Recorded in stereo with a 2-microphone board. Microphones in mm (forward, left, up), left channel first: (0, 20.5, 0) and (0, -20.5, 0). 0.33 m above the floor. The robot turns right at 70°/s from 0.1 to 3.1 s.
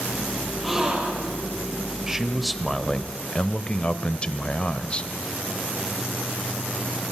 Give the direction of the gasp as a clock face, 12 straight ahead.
6 o'clock.